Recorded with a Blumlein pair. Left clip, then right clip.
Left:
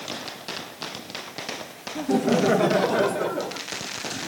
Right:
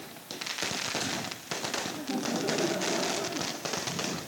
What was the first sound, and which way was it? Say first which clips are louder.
Laughter: left 10 dB; 30° left.